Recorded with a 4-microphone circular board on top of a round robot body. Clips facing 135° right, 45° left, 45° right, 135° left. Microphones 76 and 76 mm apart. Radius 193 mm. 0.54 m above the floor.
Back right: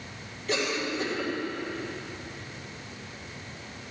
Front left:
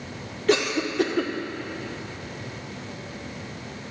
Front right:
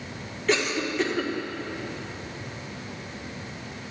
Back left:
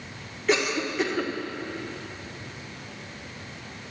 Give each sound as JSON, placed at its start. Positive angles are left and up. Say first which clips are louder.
{"t": 0.5, "sound": "a cough", "louder": "front left 7 dB, even", "azimuth_deg": 50, "distance_m": 1.7}